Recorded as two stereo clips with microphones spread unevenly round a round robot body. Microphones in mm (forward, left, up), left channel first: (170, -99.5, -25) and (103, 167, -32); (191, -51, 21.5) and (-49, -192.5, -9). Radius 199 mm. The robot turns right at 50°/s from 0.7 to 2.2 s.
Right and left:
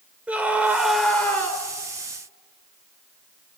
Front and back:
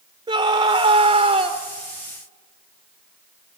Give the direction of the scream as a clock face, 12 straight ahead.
6 o'clock.